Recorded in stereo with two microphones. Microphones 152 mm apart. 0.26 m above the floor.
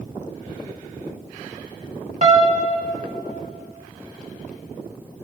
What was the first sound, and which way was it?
A piano, 50° right (ahead or behind).